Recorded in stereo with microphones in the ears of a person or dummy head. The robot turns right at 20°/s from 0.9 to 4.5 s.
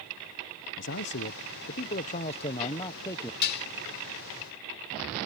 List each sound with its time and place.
0.8 s a man speaking: 120° left; by 3.3 s 165° left
3.4 s dishes clattering: 55° left (ahead or behind); by 3.7 s 60° left (ahead or behind)